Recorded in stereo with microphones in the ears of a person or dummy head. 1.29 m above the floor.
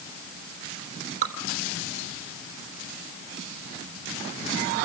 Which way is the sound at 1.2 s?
45° right (ahead or behind).